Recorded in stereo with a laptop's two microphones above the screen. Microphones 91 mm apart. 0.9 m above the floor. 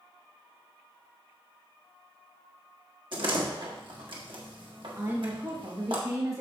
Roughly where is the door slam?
Right.